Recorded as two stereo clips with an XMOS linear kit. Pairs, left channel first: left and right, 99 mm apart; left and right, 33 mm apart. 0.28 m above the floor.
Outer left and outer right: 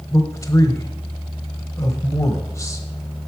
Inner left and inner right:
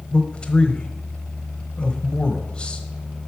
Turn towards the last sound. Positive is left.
turn(degrees=30)  # may be behind; listen again after turning